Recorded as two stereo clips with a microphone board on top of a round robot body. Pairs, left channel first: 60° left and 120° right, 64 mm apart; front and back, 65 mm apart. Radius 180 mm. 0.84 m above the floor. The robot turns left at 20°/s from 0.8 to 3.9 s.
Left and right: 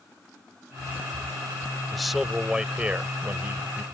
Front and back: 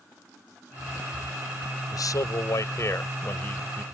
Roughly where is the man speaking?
Ahead right.